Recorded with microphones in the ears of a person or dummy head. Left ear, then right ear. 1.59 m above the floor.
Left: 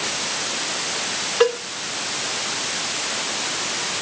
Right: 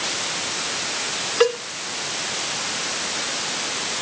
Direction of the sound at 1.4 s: 10° right (ahead or behind).